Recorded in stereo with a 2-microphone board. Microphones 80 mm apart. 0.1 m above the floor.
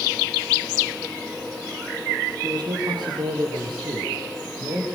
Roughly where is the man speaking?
Right.